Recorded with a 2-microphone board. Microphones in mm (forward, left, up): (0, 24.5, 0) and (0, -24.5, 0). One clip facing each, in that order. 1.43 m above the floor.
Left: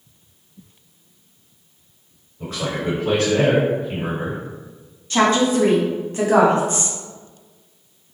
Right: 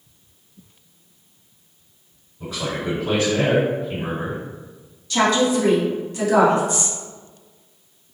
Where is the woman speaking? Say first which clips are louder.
Left 1 dB; 35° left (ahead or behind), 0.8 m.